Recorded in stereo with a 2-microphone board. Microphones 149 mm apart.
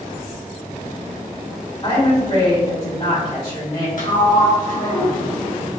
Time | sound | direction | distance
1.8 | a woman speaking | 40° left (ahead or behind) | 1.9 m
4.0 | a sliding door | 65° left (ahead or behind) | 0.9 m